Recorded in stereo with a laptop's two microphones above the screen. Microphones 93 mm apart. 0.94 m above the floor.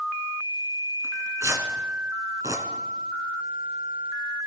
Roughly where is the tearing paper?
Right.